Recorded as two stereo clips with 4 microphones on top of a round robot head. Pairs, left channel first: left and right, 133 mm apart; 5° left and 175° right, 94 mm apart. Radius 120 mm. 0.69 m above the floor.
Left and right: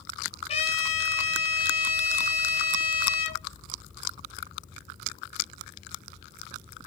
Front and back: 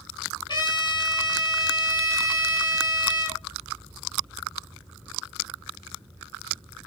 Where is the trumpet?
50° left, 6 m.